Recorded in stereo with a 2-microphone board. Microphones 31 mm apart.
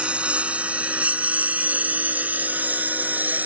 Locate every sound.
0.0 s a lawn mower: 45° right (ahead or behind); by 3.5 s 75° right (ahead or behind)